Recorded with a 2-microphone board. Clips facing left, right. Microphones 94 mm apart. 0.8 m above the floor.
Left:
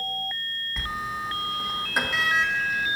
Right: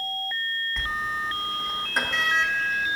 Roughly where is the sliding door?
Centre.